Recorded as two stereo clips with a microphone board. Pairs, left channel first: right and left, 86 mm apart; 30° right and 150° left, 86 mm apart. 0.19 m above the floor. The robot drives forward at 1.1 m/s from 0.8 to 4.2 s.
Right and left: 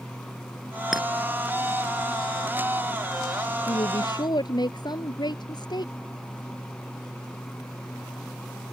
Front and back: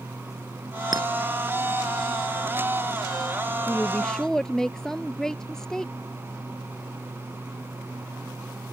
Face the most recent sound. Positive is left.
turn(degrees=-115)